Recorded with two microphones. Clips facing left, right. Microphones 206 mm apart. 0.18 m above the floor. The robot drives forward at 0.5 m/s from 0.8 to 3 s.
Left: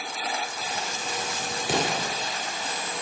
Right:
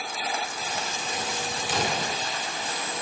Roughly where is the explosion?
Left.